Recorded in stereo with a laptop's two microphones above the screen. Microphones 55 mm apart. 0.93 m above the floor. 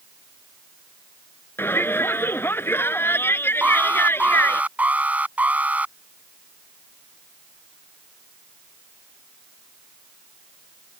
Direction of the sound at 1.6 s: 45° left (ahead or behind).